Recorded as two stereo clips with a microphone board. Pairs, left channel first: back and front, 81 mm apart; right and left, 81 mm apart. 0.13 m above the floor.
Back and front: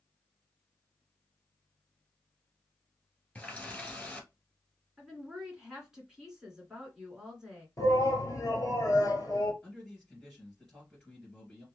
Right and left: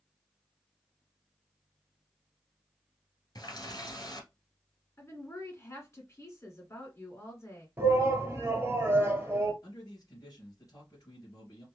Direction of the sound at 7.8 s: 145° left.